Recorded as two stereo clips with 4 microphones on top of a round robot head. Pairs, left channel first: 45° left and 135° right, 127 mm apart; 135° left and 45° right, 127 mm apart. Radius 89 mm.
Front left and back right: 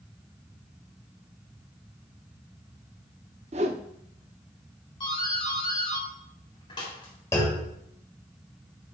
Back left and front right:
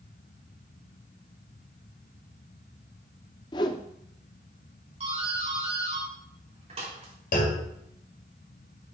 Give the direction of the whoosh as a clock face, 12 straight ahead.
6 o'clock.